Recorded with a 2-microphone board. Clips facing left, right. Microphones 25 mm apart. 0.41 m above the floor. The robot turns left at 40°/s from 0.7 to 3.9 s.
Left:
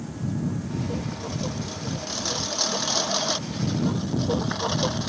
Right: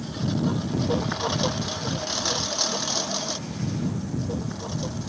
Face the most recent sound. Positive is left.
turn(degrees=125)